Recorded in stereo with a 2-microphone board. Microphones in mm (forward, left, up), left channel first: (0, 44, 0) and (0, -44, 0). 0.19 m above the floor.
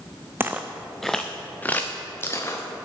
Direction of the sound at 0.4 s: 25° right (ahead or behind).